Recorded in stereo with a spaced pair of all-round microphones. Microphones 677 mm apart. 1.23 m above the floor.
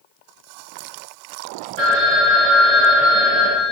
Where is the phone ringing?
70° right (ahead or behind), 1.4 m.